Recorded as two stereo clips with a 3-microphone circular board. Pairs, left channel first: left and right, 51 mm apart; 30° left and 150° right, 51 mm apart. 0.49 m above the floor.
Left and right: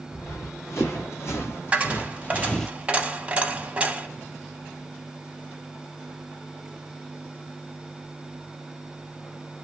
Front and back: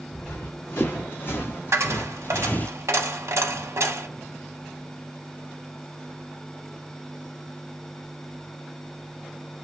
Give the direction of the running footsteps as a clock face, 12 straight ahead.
10 o'clock.